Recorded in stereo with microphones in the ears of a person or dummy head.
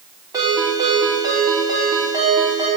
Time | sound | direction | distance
0.3 | a ringtone | 20° right (ahead or behind) | 3.5 m